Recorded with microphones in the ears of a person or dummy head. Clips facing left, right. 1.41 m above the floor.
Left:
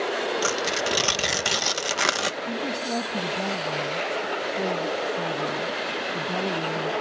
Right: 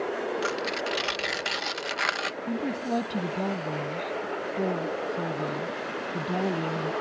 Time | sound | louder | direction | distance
0.4 | tearing paper | left 3 dB | 50° left (ahead or behind) | ?
2.5 | a woman speaking | right 4 dB | 5° right (ahead or behind) | ?